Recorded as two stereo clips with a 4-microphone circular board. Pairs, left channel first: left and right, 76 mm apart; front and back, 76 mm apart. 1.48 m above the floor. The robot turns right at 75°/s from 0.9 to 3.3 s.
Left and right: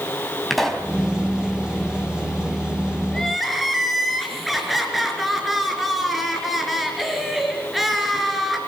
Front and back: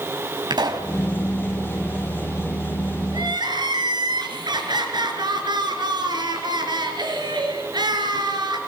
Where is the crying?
165° left, 3.5 m; by 8.6 s straight behind, 3.5 m.